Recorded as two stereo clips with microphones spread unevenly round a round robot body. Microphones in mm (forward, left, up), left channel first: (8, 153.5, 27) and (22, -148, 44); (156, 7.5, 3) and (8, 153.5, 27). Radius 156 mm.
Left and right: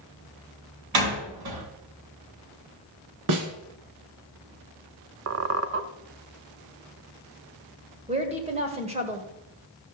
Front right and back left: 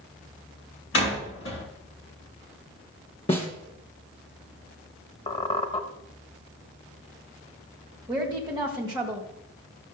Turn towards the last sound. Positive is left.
turn(degrees=-150)